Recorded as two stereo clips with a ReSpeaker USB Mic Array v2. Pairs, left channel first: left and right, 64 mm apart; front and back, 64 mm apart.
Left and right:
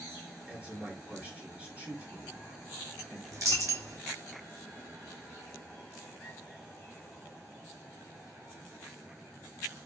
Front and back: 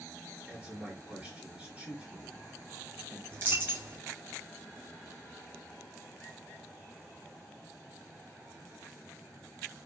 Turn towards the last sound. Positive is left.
turn(degrees=-120)